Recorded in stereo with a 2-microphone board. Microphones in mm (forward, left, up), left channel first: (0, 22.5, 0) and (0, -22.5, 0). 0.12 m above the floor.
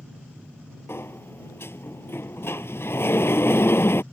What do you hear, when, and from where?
0.9 s a sliding door: 60° left (ahead or behind)